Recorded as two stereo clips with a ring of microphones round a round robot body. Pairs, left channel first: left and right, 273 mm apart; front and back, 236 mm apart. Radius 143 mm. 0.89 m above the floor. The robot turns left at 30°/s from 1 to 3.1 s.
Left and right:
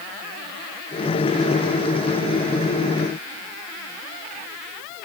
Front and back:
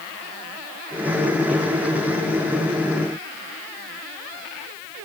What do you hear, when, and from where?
Only background noise.